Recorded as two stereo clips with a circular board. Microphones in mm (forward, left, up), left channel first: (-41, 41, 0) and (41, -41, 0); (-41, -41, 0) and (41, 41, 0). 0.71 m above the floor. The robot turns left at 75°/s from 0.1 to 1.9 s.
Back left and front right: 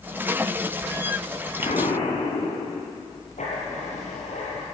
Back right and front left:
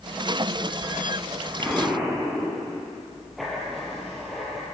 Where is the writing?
135° left, 6.5 m.